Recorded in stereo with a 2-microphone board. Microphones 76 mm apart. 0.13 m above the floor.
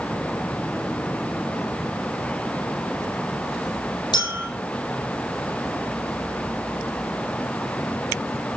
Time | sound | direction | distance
4.1 | a clink | 70° left (ahead or behind) | 3 m